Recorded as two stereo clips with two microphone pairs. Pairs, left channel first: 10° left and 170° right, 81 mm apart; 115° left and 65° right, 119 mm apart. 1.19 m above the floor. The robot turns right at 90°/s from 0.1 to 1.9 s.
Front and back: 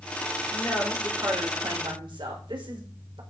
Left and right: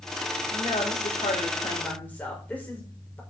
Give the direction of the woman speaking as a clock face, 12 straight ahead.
10 o'clock.